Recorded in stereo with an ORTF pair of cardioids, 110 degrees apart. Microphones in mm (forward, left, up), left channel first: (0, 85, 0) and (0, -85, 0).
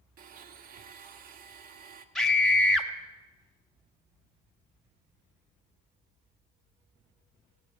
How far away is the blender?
About 1.1 m.